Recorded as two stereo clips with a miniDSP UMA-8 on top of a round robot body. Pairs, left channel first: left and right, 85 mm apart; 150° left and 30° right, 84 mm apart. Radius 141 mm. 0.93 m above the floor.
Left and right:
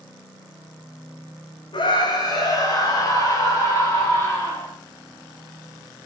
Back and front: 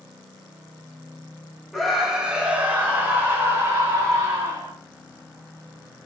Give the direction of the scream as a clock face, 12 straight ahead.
10 o'clock.